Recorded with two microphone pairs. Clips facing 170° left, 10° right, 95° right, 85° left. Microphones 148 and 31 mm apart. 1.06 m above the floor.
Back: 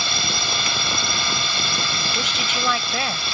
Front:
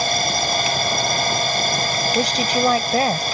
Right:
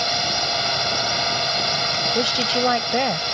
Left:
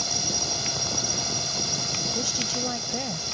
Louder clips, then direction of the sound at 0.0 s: Front 7 dB, right 8 dB; 50° right.